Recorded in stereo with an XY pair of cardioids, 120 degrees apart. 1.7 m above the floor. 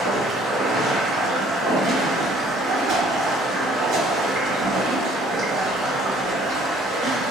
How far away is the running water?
About 1.6 m.